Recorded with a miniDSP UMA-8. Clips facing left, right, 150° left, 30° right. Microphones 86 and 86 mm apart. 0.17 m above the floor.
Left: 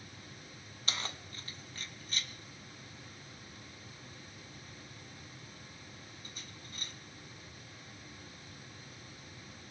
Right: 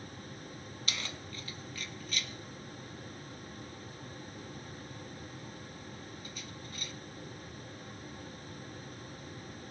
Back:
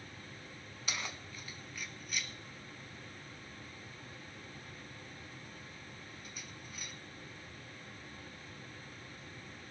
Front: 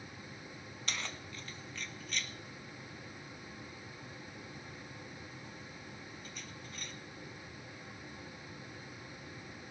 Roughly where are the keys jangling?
Left.